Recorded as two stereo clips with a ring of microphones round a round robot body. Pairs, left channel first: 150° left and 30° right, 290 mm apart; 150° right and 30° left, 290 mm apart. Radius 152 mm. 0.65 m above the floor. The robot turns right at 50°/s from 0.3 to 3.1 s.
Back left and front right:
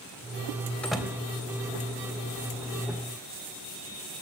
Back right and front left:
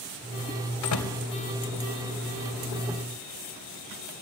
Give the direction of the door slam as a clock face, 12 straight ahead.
4 o'clock.